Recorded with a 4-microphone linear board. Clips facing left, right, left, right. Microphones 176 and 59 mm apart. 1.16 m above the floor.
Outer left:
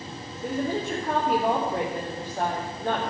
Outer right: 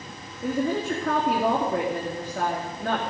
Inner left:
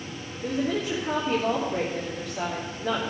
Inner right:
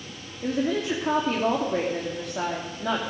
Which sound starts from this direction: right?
A woman speaking, at 0.4 s.